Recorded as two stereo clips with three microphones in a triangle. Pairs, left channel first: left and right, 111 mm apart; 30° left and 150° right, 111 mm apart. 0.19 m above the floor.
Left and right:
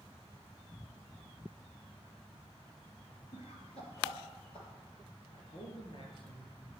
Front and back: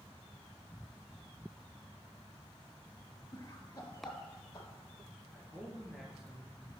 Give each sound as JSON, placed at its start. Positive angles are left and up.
{"t": 3.3, "sound": "laughter", "azimuth_deg": 85, "distance_m": 3.0}
{"t": 5.3, "sound": "a man speaking", "azimuth_deg": 125, "distance_m": 3.0}